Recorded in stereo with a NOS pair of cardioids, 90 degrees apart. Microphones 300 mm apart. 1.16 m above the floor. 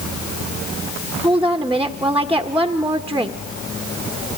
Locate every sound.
1.2 s a woman speaking: 5° right, 1.5 m